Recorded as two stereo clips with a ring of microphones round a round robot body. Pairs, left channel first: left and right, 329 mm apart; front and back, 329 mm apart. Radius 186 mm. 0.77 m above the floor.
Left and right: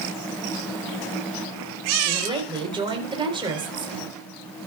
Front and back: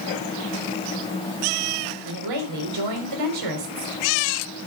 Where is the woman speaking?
165° right, 4 m.